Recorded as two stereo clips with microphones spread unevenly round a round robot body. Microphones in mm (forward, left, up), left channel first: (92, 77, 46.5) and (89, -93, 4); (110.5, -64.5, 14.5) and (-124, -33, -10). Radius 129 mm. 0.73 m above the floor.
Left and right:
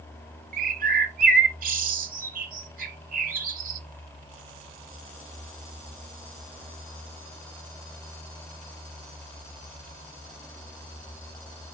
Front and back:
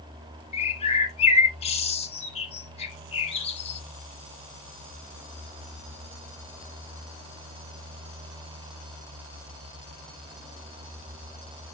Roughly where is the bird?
Ahead right.